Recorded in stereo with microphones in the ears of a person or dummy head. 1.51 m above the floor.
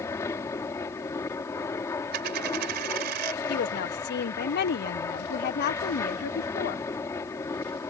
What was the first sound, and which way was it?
An aircraft, 15° left (ahead or behind).